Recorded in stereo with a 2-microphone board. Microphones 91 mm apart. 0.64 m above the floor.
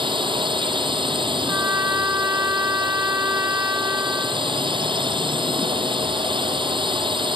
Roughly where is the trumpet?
Right.